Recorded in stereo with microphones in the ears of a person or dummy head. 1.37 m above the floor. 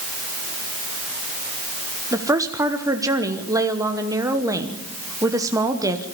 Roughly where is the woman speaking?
Centre.